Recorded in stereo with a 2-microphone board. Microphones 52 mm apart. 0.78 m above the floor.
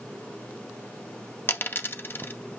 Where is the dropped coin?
45° left (ahead or behind), 0.5 m.